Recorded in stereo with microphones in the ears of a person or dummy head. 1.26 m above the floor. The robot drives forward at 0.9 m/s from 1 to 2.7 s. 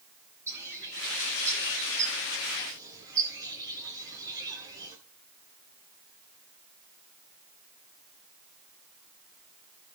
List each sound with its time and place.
0.5 s a bird: 15° right (ahead or behind), 9 m; by 5.0 s 20° right (ahead or behind), 7.5 m